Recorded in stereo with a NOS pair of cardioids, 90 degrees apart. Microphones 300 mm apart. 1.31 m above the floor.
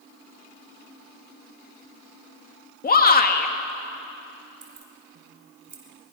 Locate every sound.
2.8 s a shout: 30° left, 2.5 m
4.6 s keys jangling: 35° right, 4 m